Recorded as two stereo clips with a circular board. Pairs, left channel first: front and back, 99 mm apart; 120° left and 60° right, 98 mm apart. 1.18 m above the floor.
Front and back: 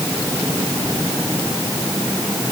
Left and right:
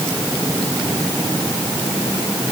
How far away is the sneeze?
I don't hear a sneeze.